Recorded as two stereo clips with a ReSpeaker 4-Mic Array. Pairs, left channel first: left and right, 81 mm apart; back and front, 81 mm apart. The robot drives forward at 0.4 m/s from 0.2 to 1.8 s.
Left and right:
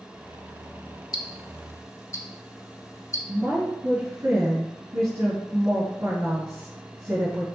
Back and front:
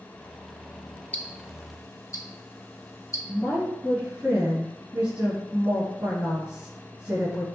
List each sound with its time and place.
1.1 s ticking: 115° left, 0.6 m; by 3.2 s 135° left, 0.7 m
3.3 s a woman speaking: 75° right, 2 m